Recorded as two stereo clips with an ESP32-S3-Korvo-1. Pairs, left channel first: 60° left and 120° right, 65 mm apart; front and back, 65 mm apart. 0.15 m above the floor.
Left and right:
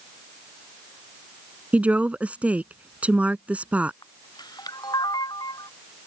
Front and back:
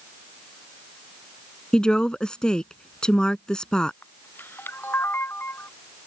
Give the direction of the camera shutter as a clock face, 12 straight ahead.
10 o'clock.